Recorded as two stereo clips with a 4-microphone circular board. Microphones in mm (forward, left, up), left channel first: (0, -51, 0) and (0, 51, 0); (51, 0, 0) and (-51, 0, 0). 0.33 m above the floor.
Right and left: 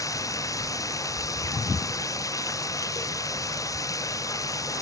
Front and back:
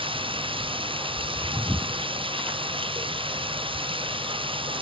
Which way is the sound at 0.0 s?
150° right.